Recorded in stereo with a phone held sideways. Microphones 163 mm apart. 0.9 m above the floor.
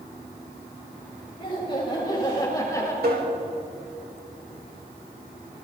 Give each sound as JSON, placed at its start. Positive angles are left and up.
{"t": 1.4, "sound": "laughter", "side_deg": 30, "distance_m": 5.5}
{"t": 3.0, "sound": "tapping", "side_deg": -75, "distance_m": 4.0}